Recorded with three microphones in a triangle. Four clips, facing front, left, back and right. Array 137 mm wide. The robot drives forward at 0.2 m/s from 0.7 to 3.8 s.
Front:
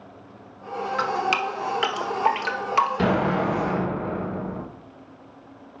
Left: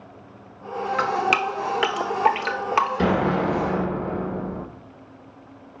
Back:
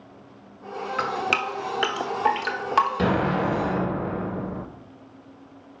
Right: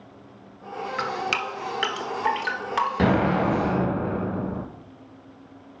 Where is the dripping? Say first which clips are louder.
Left 6 dB, front 2 dB; 115° left, 0.8 m; by 2.9 s 140° left, 1.0 m.